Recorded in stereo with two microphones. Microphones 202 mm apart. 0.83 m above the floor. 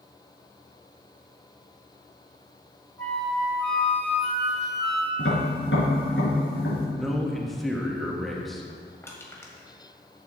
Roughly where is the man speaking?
Centre.